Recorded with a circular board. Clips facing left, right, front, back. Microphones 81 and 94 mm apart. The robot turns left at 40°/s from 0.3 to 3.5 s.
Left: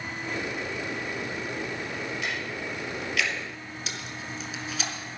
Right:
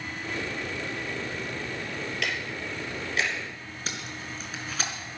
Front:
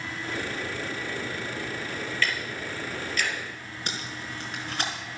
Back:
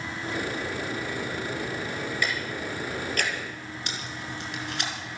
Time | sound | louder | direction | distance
2.2 | ticking | even, back 1 dB | 105° right | 3 m
3.9 | tape being pulled | right 2 dB, front 2 dB | 45° right | 4 m